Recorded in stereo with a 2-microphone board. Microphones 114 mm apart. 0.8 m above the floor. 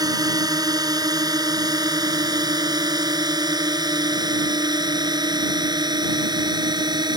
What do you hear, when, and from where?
0.0 s a drone: 35° right (ahead or behind); by 7.2 s 40° right (ahead or behind)